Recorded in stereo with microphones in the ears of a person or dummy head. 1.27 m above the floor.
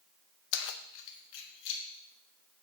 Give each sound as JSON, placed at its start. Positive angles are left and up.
{"t": 0.5, "sound": "keys jangling", "side_deg": 60, "distance_m": 0.5}